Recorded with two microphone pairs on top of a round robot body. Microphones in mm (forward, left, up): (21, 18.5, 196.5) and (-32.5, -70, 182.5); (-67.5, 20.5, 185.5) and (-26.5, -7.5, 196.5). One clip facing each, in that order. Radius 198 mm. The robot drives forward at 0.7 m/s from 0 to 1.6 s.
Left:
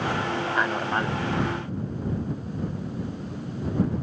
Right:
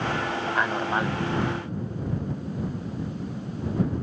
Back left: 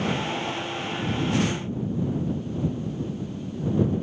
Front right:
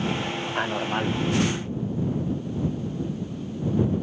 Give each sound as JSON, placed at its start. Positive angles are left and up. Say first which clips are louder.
{"t": 0.6, "sound": "a man speaking", "louder": "right 1 dB, front right 4 dB", "azimuth_deg": -35}